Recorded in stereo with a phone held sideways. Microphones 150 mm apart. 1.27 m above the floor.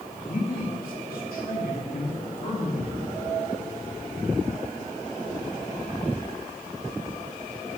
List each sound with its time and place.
0.1 s a man speaking: 70° left (ahead or behind), 2.5 m